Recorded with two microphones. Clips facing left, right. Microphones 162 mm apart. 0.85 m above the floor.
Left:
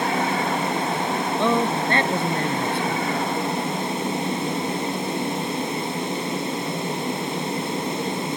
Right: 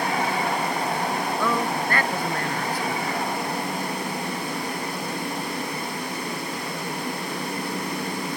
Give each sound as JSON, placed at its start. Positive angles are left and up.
{"t": 1.4, "sound": "a man speaking", "side_deg": 25}